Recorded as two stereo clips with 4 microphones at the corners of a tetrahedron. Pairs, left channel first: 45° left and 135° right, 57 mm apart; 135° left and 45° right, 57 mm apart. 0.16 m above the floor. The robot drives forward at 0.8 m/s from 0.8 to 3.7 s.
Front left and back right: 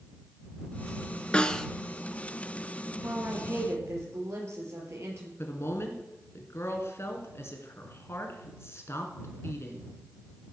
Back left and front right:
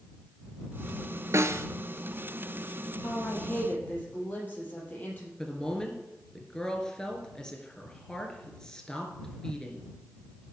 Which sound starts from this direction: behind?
A woman speaking, at 3.0 s.